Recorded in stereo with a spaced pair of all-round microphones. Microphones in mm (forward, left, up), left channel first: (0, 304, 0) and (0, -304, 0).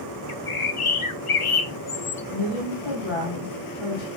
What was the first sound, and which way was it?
A bird, 60° left (ahead or behind).